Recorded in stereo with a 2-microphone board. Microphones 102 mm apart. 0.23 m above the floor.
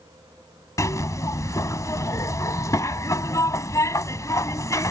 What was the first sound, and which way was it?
A zipper, 35° left (ahead or behind).